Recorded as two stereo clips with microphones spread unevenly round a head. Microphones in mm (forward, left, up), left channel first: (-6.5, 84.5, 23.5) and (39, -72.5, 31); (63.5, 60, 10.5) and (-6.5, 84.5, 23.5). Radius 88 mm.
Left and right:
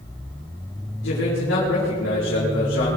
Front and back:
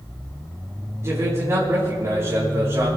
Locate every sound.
1.0 s a man speaking: 110° left, 5 m